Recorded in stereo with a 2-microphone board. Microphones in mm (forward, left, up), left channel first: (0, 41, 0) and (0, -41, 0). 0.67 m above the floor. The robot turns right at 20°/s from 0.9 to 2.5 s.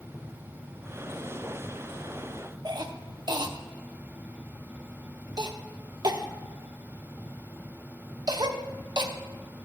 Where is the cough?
55° right (ahead or behind), 0.8 m.